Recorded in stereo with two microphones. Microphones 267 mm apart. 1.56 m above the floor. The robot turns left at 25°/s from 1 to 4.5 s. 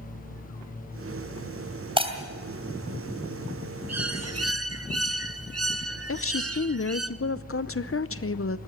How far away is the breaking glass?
About 2.5 m.